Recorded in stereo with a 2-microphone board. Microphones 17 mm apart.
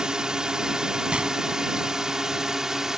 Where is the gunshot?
85° right.